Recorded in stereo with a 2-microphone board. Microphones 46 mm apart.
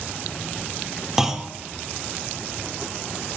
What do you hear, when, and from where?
1.2 s a clunk: 10° right (ahead or behind), 0.8 m